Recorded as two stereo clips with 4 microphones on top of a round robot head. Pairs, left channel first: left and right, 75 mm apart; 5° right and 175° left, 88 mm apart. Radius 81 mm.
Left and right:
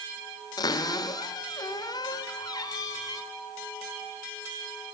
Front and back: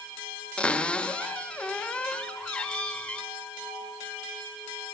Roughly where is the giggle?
I don't hear a giggle.